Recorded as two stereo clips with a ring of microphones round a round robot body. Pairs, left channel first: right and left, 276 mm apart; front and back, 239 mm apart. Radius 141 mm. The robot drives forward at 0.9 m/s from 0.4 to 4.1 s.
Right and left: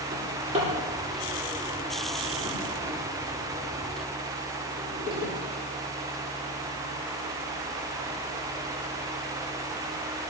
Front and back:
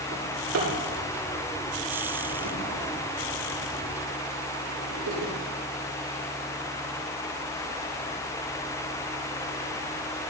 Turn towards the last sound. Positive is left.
turn(degrees=160)